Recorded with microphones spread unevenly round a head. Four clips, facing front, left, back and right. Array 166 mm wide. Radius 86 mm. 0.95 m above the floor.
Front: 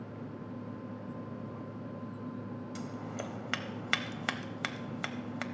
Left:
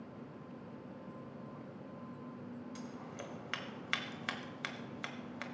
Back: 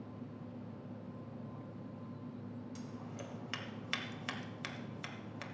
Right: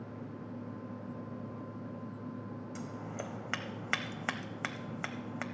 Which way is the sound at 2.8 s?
50° right.